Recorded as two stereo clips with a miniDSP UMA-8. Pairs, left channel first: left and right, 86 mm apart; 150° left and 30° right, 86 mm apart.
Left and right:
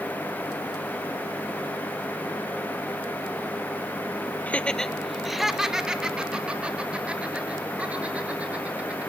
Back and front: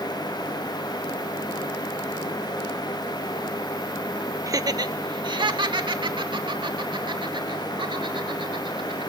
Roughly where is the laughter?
Ahead.